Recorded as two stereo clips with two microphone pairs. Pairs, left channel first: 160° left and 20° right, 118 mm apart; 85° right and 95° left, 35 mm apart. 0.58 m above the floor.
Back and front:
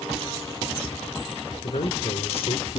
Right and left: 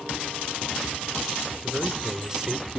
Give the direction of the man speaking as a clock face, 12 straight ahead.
7 o'clock.